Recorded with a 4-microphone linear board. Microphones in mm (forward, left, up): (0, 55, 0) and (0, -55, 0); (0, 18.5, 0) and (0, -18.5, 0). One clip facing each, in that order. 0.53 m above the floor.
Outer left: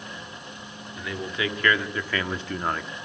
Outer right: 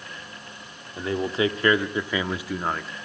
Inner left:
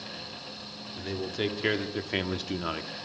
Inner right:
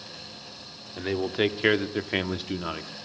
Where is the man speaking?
35° right (ahead or behind), 1.2 m; by 2.9 s centre (ahead or behind), 1.0 m.